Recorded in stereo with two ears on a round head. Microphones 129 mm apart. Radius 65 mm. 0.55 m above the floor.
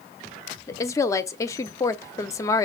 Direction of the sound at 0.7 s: 20° left (ahead or behind).